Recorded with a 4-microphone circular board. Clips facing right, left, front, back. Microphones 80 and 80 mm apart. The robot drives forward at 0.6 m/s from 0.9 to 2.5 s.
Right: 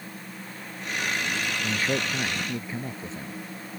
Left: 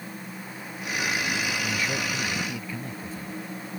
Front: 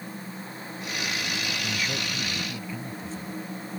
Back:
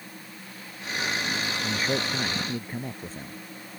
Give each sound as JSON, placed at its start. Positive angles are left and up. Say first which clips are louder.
{"t": 1.6, "sound": "a man speaking", "louder": "right 1 dB, back 3 dB", "azimuth_deg": -135}